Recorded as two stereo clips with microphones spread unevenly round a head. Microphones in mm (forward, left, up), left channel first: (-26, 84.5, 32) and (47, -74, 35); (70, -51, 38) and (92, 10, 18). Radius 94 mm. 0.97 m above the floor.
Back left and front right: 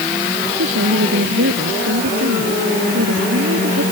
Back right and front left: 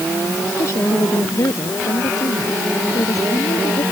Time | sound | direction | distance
0.6 | a woman speaking | 75° right | ?